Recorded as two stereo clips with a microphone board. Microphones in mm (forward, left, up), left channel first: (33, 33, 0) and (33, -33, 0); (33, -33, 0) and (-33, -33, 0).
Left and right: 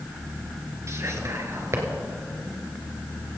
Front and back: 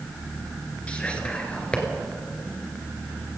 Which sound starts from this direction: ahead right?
Whispering, at 0.9 s.